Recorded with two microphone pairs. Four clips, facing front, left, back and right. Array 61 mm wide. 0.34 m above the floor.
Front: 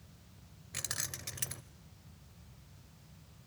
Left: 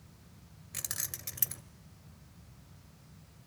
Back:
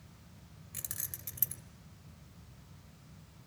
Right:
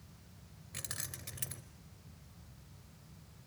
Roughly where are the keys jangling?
Ahead.